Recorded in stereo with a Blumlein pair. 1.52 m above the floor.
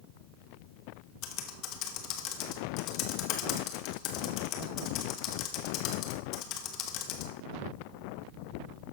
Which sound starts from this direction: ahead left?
Typing on a keyboard, at 1.2 s.